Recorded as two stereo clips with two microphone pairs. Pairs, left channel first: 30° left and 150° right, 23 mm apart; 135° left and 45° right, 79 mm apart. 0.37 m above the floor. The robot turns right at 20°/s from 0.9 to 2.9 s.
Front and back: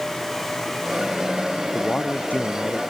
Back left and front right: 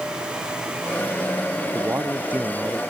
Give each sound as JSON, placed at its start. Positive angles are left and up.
{"t": 1.6, "sound": "a man speaking", "azimuth_deg": 10}